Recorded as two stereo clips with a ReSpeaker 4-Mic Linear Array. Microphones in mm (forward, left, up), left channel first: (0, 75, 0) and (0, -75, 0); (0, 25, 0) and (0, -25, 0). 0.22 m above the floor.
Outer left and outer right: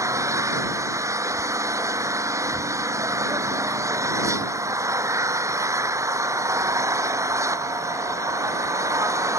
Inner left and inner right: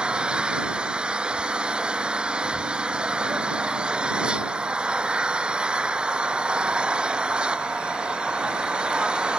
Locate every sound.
0.0 s an engine running: 20° right (ahead or behind)